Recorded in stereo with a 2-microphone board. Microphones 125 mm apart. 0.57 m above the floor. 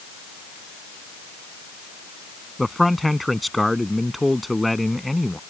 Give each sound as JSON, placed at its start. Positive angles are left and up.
{"t": 2.6, "sound": "a man speaking", "side_deg": 0}